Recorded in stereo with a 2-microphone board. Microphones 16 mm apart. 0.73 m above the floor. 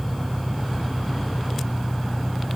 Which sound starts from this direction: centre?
An engine running, at 0.0 s.